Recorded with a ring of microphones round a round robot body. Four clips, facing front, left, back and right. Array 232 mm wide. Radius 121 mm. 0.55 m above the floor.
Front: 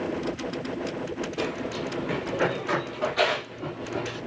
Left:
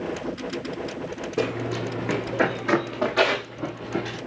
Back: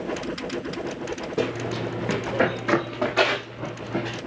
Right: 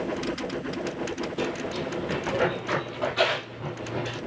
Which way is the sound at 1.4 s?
130° left.